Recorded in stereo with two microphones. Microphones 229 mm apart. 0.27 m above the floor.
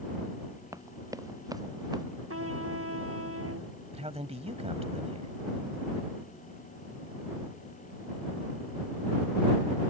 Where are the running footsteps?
15° right (ahead or behind).